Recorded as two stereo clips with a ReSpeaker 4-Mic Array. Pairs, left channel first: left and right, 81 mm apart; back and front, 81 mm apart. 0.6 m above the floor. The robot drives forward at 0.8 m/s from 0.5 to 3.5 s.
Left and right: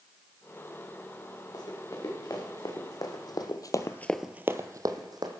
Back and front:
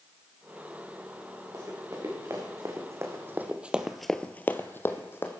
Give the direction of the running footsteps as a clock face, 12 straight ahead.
10 o'clock.